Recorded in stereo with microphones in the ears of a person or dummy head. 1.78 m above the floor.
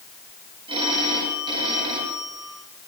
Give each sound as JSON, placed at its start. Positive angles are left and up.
{"t": 0.7, "sound": "a phone ringing", "side_deg": -30, "distance_m": 9.0}